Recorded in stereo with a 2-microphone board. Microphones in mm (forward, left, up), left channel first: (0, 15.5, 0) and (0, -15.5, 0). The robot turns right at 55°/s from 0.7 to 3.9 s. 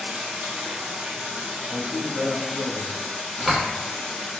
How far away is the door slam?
About 0.9 m.